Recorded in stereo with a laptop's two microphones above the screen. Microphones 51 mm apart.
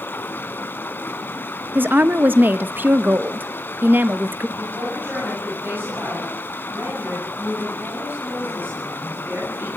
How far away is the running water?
About 1.2 m.